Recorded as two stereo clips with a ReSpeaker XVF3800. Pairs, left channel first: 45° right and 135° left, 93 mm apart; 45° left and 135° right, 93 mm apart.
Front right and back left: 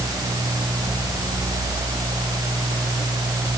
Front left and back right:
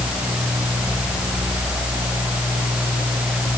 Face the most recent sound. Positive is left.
No sound to turn to.